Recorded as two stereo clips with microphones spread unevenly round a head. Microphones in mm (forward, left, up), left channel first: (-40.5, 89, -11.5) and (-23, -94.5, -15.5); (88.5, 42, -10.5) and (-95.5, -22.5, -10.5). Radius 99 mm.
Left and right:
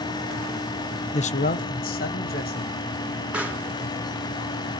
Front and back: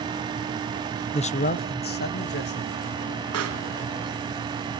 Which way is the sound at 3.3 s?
170° right.